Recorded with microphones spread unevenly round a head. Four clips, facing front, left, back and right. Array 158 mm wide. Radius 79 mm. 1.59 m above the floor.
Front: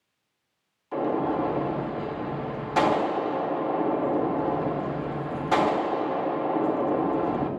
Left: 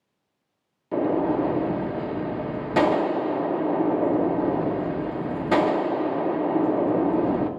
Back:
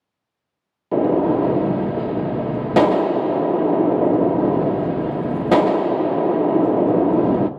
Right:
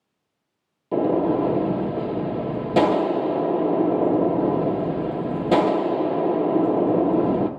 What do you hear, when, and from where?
0.9 s a gunshot: 170° right, 0.8 m